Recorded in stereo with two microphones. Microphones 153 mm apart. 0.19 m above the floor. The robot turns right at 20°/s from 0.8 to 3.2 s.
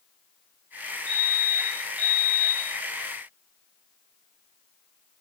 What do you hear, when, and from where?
1.1 s a fire alarm: 25° right, 7.5 m; by 2.7 s 10° left, 7.5 m